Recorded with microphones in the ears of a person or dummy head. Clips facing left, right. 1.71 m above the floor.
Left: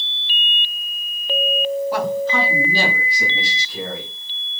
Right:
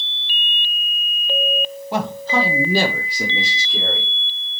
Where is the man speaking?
25° right (ahead or behind), 0.8 m; by 4.1 s 85° right, 1.6 m.